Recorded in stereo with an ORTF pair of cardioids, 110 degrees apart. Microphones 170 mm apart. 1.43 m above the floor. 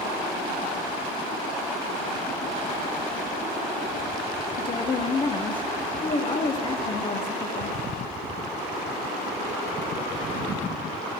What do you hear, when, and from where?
4.6 s a woman speaking: 30° left, 0.7 m